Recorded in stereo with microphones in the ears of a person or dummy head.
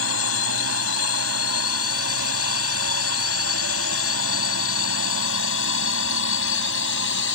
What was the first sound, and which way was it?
A drone, 70° left (ahead or behind).